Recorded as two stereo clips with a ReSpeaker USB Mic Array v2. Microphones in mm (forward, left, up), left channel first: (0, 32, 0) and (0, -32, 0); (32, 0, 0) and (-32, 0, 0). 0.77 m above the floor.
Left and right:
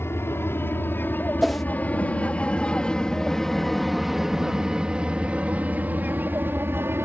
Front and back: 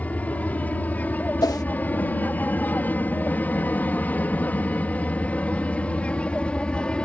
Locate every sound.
0.0 s an aircraft: 60° left; by 7.0 s 65° right
1.4 s a whoosh: straight ahead